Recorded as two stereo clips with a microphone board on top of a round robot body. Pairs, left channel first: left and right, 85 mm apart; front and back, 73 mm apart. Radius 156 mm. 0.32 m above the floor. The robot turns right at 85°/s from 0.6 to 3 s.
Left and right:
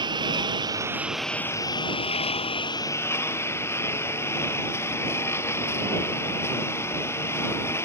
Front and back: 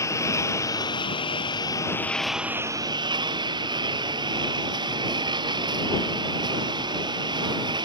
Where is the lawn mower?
50° right; by 7.8 s 150° left.